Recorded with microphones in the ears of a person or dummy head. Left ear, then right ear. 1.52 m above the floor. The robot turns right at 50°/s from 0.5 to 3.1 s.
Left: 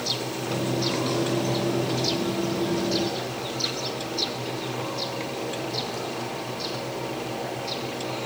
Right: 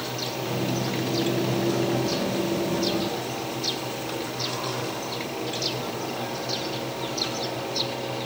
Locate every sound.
Only background noise.